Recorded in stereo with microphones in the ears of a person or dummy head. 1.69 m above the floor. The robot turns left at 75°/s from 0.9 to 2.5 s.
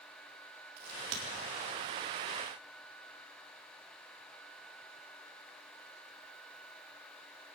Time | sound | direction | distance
0.8 | a crack | 60° right (ahead or behind) | 4.5 m